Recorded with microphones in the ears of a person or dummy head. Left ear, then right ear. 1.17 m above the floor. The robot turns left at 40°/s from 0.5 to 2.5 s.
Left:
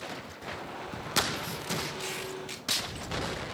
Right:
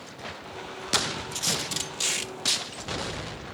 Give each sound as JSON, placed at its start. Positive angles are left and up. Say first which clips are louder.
{"t": 1.3, "sound": "tape being pulled", "louder": "right 6 dB", "azimuth_deg": -105, "distance_m": 0.6}